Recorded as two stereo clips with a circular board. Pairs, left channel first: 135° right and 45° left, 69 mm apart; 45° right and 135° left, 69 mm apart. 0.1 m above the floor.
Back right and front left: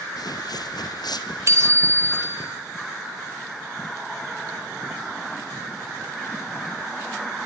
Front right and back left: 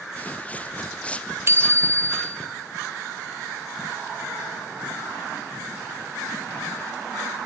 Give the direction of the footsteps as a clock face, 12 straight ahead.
4 o'clock.